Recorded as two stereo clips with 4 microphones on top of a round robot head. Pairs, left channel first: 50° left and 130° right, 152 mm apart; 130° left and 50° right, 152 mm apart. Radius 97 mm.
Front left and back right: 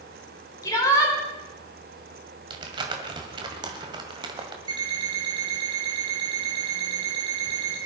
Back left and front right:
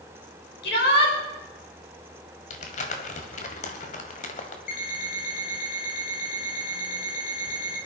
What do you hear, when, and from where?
0.6 s a shout: 120° left, 5.5 m
2.5 s crumpling: 170° left, 1.7 m
4.7 s an alarm clock: 170° left, 4.5 m